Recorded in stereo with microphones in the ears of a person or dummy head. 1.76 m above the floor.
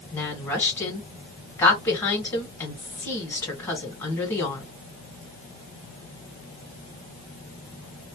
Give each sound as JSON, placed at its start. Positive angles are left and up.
{"t": 0.1, "sound": "a woman speaking", "side_deg": 15, "distance_m": 1.4}